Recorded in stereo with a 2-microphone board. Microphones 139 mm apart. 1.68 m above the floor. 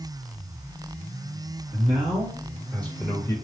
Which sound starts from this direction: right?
A man speaking, at 1.7 s.